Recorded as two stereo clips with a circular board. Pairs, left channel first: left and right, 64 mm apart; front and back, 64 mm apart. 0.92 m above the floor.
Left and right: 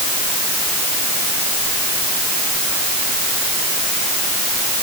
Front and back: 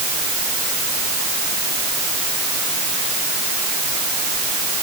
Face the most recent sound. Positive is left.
No sound to turn to.